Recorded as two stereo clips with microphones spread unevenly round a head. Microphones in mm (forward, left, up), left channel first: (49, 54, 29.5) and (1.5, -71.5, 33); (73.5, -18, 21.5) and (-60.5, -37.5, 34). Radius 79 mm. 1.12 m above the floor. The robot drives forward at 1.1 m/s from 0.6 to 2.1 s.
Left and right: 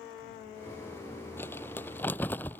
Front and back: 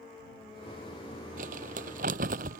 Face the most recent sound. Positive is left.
turn(degrees=150)